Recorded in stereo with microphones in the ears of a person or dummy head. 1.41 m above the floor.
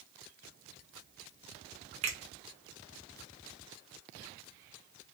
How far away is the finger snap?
About 0.6 m.